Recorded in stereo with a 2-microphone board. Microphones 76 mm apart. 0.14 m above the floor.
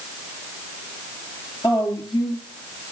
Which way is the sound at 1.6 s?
65° left (ahead or behind).